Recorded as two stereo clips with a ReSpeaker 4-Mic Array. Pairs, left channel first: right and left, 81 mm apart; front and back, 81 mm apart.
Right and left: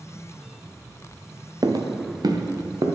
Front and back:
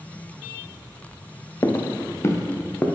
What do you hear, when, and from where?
1.6 s footsteps: 55° left, 0.9 m